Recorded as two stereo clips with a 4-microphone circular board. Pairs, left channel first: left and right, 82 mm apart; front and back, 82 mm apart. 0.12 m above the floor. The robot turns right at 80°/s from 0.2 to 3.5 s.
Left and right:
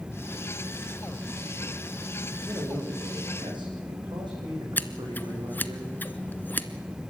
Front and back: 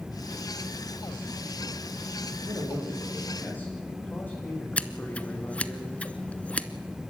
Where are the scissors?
55° left, 0.9 m.